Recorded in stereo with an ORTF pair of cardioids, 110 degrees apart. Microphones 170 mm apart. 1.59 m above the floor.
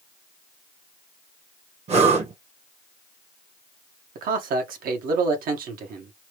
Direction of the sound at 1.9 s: 40° right.